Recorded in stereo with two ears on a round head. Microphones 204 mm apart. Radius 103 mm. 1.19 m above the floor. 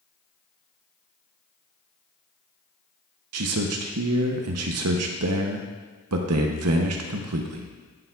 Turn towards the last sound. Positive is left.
turn(degrees=-75)  # may be behind; listen again after turning